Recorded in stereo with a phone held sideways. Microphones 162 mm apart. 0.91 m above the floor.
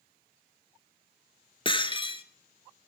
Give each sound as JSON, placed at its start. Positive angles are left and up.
{"t": 1.6, "sound": "breaking glass", "side_deg": 30, "distance_m": 1.0}